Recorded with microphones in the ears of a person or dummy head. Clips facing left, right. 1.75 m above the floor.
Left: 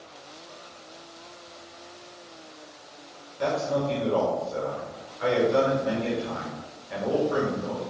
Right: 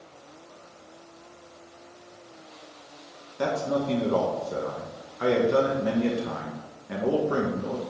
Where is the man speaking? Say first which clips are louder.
Even; 75° right (ahead or behind), 1.7 m.